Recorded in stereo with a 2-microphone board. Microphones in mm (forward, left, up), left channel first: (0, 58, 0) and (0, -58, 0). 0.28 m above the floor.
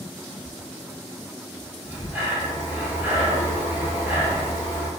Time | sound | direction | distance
1.8 | breathing | 20° right (ahead or behind) | 1.6 m